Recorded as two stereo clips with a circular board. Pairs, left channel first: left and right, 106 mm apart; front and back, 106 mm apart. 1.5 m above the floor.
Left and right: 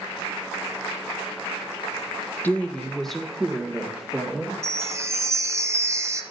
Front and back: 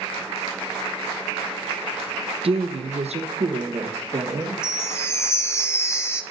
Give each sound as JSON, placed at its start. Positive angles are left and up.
{"t": 2.4, "sound": "a woman speaking", "azimuth_deg": 165, "distance_m": 0.7}
{"t": 4.6, "sound": "a chime", "azimuth_deg": -45, "distance_m": 0.7}